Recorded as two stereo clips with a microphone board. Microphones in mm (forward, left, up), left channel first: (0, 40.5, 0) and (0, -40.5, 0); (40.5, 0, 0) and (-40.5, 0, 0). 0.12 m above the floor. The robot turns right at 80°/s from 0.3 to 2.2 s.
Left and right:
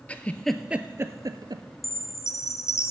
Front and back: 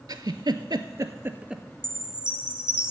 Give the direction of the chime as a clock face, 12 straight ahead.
9 o'clock.